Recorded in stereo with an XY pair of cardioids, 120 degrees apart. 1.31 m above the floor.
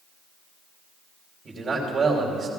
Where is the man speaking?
35° right, 3.5 m.